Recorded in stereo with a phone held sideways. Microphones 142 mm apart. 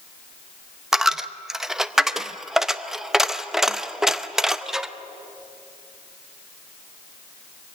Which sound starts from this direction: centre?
A dropped coin, at 0.9 s.